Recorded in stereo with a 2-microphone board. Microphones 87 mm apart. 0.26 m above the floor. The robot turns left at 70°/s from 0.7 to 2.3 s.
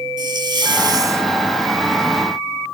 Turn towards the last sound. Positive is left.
turn(degrees=140)